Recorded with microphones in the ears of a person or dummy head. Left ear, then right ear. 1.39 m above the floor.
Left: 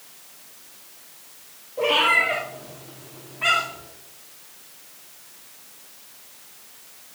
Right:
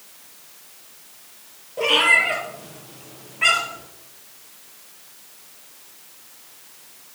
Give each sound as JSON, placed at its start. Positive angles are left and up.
{"t": 1.8, "sound": "a cat meowing", "side_deg": -55, "distance_m": 2.5}